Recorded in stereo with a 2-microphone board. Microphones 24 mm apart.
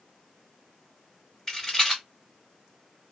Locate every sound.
1.5 s a rattle: 15° left (ahead or behind), 2 m